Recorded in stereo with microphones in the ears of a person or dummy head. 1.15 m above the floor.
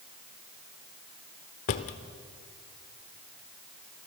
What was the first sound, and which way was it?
A drawer, 40° left (ahead or behind).